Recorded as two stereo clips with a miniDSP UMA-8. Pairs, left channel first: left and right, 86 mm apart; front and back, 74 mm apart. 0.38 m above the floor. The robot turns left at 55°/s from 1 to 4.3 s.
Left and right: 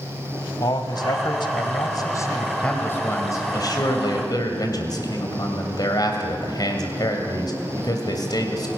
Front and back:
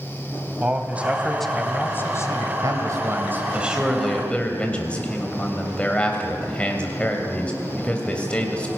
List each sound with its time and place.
0.6 s a man speaking: 110° left, 2.0 m; by 2.5 s 25° left, 2.0 m
2.6 s a man speaking: 165° left, 2.5 m; by 8.7 s 70° left, 2.5 m